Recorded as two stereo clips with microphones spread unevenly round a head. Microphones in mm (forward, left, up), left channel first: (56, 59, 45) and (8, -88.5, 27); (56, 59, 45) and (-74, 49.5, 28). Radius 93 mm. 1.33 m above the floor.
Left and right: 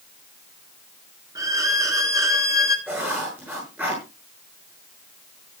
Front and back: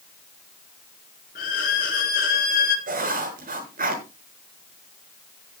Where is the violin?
40° right, 3 m.